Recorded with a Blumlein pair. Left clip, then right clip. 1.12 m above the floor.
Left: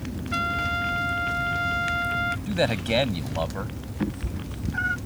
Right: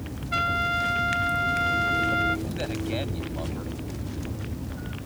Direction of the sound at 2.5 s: 60° left.